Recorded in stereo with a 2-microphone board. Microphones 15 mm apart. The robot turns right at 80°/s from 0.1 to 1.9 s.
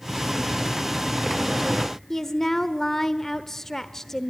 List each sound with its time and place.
2.1 s a woman speaking: 30° left (ahead or behind), 1.0 m